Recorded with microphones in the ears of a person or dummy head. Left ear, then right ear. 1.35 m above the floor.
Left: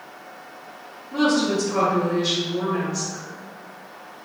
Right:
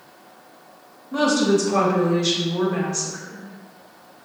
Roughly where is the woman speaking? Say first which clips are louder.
Right 2 dB; right.